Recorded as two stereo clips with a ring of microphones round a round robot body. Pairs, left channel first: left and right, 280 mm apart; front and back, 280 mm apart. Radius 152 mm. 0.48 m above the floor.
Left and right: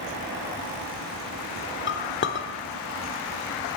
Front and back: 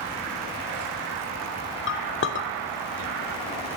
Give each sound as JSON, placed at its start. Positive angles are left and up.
{"t": 1.9, "sound": "a clink", "azimuth_deg": 45, "distance_m": 0.8}